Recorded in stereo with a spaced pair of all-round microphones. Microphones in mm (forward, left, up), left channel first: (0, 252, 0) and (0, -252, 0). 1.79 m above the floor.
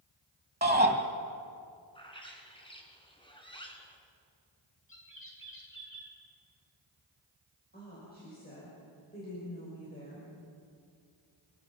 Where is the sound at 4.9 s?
40° right (ahead or behind), 7.5 m.